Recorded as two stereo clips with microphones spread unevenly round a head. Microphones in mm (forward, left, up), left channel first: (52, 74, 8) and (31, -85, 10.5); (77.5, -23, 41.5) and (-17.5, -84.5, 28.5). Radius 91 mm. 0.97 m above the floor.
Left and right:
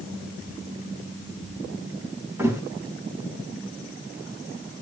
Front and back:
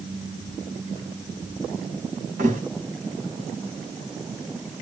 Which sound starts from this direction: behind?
A thud, at 2.4 s.